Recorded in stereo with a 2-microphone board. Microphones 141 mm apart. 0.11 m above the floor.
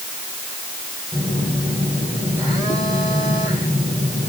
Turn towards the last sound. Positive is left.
turn(degrees=10)  # may be behind; listen again after turning